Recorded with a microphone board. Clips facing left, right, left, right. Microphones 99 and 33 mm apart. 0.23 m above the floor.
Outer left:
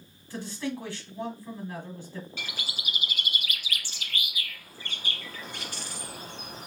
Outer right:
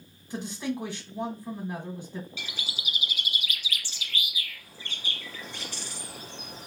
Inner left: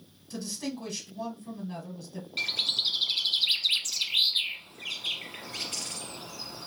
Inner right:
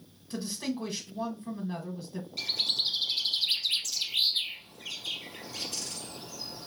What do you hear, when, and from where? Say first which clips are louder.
0.3 s a man speaking: outer right 1 dB, inner right 2 dB; 20° right (ahead or behind), 1.5 m
2.4 s a bird: outer left 1 dB, inner left 2 dB; 55° left (ahead or behind), 0.9 m